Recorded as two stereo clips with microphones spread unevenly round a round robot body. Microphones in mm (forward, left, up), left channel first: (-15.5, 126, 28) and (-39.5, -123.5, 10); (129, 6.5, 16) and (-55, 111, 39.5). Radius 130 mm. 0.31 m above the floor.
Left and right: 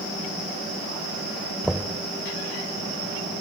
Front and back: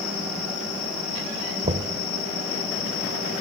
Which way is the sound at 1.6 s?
Straight behind.